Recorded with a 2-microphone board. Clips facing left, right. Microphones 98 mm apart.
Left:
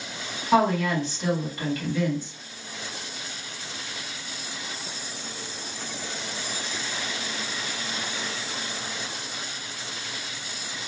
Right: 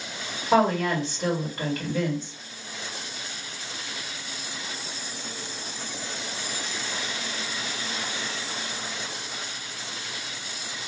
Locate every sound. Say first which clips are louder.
0.5 s a woman speaking: even; 40° right (ahead or behind), 1.8 m